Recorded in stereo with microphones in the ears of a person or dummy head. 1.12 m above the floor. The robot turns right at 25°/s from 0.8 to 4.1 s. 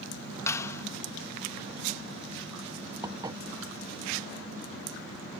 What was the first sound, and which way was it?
A clap, 15° left (ahead or behind).